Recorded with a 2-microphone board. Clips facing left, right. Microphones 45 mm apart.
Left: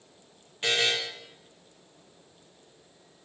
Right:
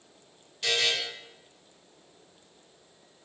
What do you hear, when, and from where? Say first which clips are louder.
0.6 s a buzzer: left 1 dB; 30° left (ahead or behind), 0.6 m